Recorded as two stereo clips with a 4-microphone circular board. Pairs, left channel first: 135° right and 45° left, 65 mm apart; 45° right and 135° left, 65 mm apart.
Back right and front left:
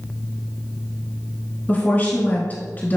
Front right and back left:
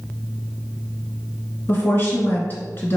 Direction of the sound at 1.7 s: 85° right.